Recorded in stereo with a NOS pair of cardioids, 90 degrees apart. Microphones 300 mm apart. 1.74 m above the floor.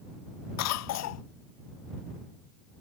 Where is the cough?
65° left.